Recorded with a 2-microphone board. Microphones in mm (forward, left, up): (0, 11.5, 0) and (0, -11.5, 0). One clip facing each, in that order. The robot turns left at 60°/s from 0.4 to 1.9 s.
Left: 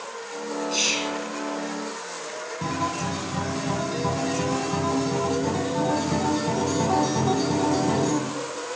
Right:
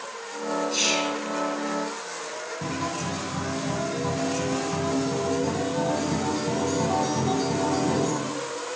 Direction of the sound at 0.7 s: 15° left (ahead or behind).